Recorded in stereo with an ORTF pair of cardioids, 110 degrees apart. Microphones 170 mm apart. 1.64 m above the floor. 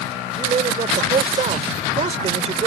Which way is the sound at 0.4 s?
40° right.